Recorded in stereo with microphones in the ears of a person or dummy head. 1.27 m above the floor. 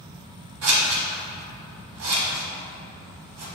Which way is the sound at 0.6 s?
70° right (ahead or behind).